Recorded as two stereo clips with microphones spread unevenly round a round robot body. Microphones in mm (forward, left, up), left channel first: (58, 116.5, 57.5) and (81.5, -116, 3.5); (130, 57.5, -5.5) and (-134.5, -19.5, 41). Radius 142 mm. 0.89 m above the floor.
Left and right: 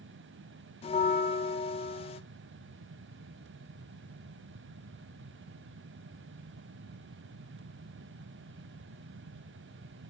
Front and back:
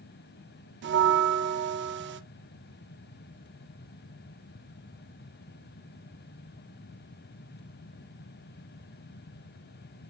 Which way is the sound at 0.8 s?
165° left.